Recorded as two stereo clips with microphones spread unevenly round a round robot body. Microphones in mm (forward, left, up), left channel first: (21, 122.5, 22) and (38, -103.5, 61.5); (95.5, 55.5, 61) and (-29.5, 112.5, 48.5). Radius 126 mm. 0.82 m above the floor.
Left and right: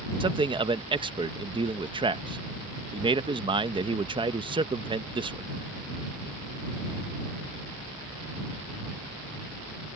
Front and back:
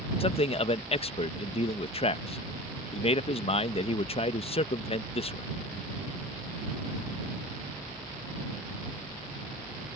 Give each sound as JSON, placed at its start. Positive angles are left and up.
{"t": 0.2, "sound": "a man speaking", "azimuth_deg": -15}